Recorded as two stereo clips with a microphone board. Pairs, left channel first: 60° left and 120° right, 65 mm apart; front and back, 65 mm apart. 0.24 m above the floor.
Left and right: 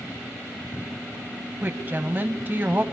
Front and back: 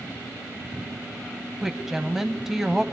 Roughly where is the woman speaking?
Right.